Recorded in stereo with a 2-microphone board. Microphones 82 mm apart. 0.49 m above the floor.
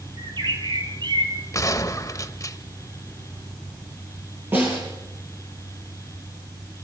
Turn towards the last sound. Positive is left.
turn(degrees=-25)  # may be behind; listen again after turning